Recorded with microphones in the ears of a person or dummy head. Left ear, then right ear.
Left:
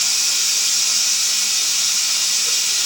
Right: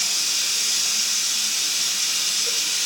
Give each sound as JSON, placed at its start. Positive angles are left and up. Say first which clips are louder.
{"t": 0.0, "sound": "running water", "louder": "left 4 dB", "side_deg": 45, "distance_m": 4.0}